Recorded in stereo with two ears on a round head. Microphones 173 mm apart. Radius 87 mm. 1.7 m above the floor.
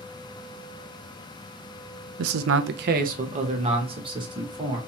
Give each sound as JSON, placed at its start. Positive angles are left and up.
{"t": 2.2, "sound": "a man speaking", "side_deg": -75, "distance_m": 0.5}